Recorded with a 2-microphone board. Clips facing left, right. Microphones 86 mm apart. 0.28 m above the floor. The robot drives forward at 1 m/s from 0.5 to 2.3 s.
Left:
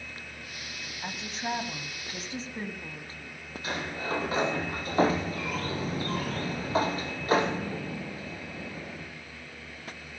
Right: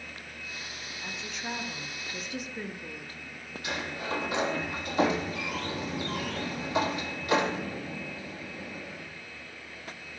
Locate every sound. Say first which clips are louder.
1.0 s a woman speaking: left 4 dB; 45° left (ahead or behind), 1.7 m; by 3.4 s 30° left (ahead or behind), 2.5 m
3.6 s a sliding door: left 1 dB; 35° left (ahead or behind), 4 m